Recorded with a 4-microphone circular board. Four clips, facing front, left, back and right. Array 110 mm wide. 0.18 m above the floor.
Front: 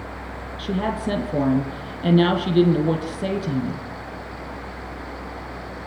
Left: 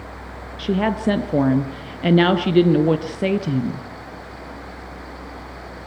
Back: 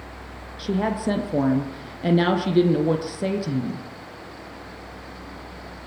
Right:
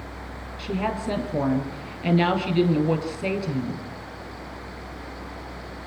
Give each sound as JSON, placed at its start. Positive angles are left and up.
{"t": 0.6, "sound": "a woman speaking", "azimuth_deg": 105, "distance_m": 4.0}